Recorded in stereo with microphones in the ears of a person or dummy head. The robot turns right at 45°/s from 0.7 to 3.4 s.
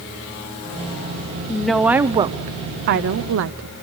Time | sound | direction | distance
1.5 | a woman speaking | 170° left | 0.7 m